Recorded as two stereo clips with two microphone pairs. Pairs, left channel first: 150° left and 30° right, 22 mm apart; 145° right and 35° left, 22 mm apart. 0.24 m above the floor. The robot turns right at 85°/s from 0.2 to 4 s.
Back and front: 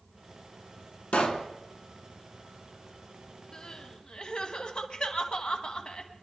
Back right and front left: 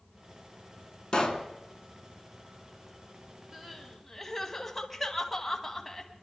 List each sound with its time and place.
1.1 s a pop: 160° left, 1.2 m; by 1.5 s 170° right, 1.2 m
3.5 s crying: 95° left, 1.4 m; by 6.2 s 135° left, 1.4 m